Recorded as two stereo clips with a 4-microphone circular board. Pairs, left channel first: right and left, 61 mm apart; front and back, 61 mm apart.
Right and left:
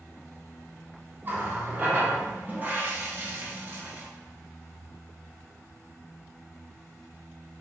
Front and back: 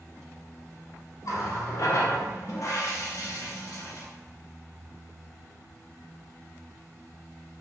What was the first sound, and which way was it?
A running tap, 30° left.